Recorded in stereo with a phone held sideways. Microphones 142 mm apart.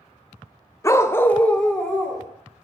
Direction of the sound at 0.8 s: 20° left (ahead or behind).